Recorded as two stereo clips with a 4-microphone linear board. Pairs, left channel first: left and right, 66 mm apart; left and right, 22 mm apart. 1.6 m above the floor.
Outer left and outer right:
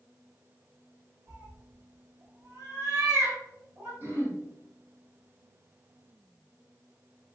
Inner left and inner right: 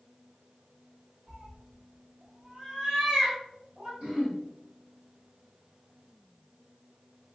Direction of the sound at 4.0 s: 50° right (ahead or behind).